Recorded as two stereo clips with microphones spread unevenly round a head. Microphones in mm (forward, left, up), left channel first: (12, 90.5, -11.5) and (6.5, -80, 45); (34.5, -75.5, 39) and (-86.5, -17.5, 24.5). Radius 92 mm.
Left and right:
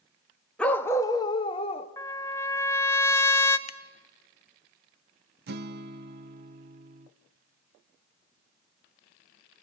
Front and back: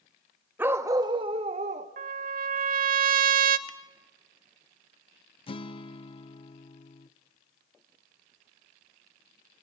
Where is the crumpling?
I don't hear crumpling.